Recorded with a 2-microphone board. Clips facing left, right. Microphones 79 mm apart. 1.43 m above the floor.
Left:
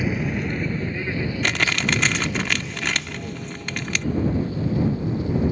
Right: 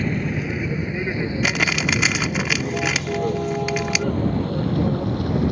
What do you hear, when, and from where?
0.0 s a vehicle: 5° left (ahead or behind); by 5.5 s 70° right (ahead or behind)
1.4 s crumpling: 5° right (ahead or behind)